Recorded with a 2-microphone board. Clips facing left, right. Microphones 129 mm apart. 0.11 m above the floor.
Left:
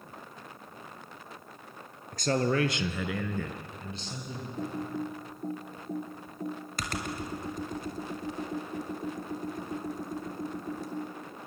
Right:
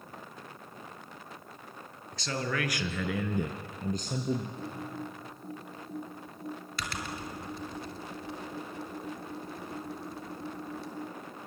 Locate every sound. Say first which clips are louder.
2.1 s a man speaking: left 7 dB; 50° left (ahead or behind), 1.8 m; by 4.5 s 55° right (ahead or behind), 2 m
4.6 s typing on a keyboard: left 5 dB; 45° left (ahead or behind), 2.5 m